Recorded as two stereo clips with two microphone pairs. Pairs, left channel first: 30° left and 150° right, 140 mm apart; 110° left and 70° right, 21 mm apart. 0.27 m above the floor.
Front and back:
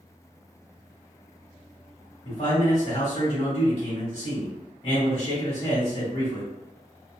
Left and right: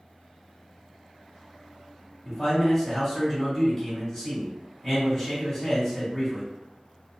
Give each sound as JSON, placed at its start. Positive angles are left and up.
{"t": 2.2, "sound": "a man speaking", "azimuth_deg": 20, "distance_m": 1.4}